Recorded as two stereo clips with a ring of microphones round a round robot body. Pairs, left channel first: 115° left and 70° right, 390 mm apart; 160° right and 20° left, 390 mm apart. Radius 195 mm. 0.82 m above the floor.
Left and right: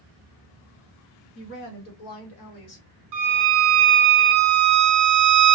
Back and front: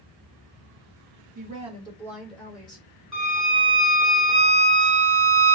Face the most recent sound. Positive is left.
turn(degrees=-70)